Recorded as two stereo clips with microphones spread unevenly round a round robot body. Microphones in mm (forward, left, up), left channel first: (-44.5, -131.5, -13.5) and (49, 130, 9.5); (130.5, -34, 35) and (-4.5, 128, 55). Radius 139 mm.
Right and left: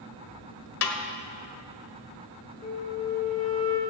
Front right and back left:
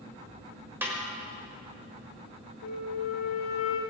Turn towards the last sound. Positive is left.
turn(degrees=-45)